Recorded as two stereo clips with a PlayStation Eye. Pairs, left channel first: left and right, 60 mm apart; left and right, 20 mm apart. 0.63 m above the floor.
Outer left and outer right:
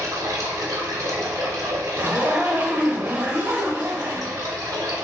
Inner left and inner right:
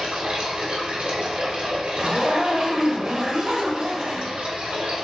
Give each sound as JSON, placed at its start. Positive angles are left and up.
{"t": 0.0, "sound": "running water", "side_deg": -70, "distance_m": 0.9}
{"t": 2.0, "sound": "a zipper", "side_deg": -30, "distance_m": 0.8}